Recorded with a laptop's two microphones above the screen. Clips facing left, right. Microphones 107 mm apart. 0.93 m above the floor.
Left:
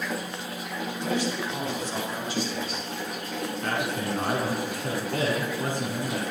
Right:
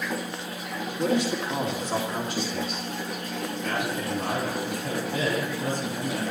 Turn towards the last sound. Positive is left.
turn(degrees=60)  # may be behind; listen again after turning